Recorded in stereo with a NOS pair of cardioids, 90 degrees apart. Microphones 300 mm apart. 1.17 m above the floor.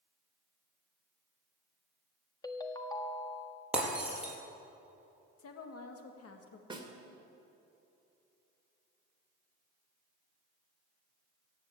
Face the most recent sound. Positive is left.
turn(degrees=-15)